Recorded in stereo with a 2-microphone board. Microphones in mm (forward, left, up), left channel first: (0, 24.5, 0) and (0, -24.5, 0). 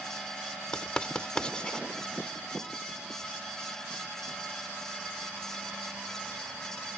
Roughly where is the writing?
Centre.